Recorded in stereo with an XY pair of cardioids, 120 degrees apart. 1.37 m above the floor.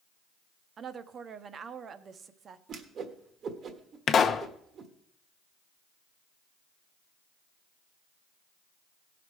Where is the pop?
45° left, 0.7 m.